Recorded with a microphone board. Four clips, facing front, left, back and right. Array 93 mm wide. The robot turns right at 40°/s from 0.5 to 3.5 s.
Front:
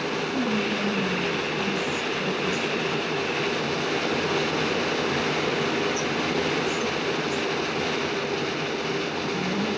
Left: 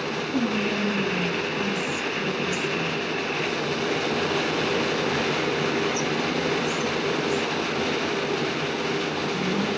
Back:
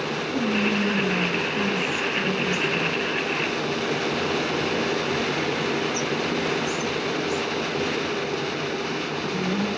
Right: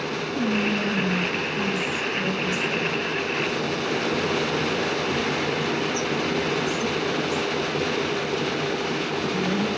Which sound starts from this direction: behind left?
Whispering, at 0.3 s.